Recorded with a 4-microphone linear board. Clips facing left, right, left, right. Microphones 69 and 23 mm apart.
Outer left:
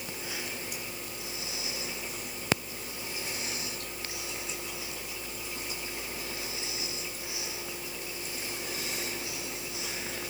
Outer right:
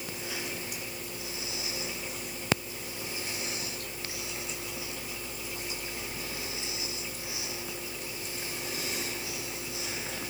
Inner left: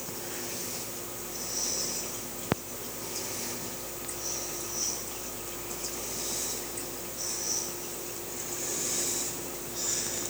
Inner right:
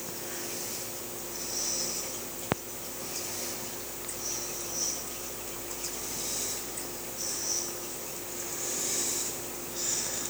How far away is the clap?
No clap in this recording.